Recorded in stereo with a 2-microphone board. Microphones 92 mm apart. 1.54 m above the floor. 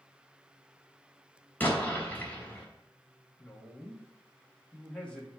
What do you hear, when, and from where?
1.6 s an explosion: 15° left (ahead or behind), 3 m
3.4 s a woman speaking: 10° left (ahead or behind), 2.5 m